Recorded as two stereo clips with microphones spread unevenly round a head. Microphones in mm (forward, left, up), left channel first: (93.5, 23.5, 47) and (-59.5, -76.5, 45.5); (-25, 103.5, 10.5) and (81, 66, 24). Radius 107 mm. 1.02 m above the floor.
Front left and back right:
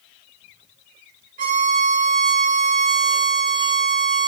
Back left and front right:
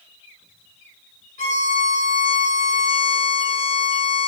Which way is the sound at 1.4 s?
160° left.